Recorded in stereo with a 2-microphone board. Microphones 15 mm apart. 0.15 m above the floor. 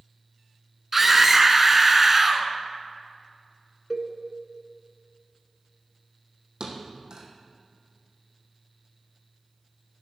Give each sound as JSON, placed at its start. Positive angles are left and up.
{"t": 0.9, "sound": "a scream", "side_deg": -20, "distance_m": 1.4}
{"t": 3.9, "sound": "a cowbell", "side_deg": -10, "distance_m": 1.1}
{"t": 6.6, "sound": "a thud", "side_deg": -45, "distance_m": 2.0}